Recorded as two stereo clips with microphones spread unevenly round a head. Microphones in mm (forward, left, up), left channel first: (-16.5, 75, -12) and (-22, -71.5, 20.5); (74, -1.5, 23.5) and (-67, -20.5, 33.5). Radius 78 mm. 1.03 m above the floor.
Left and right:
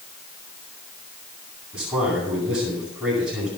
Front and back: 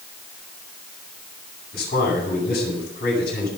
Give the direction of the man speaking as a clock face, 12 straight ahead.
12 o'clock.